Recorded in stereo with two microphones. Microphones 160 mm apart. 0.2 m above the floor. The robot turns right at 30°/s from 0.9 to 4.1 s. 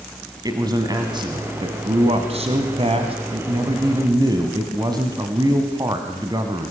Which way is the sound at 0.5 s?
140° right.